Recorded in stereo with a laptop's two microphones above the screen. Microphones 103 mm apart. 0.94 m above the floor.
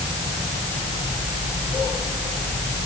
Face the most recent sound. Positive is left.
No sound to turn to.